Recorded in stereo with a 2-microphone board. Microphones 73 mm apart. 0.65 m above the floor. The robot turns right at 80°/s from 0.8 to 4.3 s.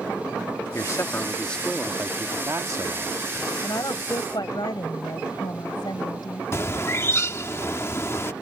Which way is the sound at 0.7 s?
105° left.